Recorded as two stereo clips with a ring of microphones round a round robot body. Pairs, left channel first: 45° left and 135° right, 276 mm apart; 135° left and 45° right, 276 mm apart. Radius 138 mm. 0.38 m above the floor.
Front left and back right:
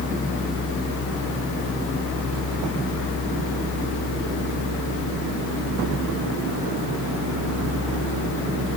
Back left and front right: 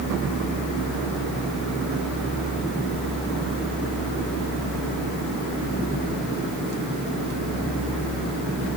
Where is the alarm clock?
I don't hear an alarm clock.